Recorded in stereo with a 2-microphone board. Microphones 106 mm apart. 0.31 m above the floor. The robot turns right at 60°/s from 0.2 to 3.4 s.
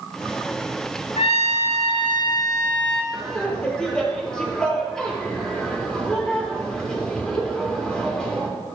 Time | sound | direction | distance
1.2 | a trumpet | 70° left | 2.5 m
3.1 | laughter | 10° right (ahead or behind) | 5.5 m